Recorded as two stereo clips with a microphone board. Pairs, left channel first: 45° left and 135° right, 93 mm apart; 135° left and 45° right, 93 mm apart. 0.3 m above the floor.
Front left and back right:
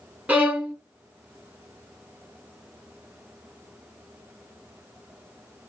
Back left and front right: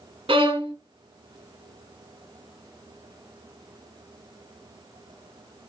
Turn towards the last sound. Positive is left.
turn(degrees=-60)